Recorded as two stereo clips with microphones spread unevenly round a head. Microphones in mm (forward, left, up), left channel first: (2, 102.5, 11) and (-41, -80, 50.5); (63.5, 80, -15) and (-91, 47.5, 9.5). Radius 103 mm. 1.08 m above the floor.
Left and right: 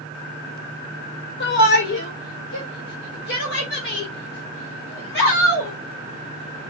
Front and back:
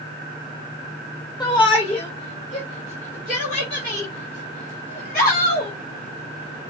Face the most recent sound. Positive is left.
turn(degrees=40)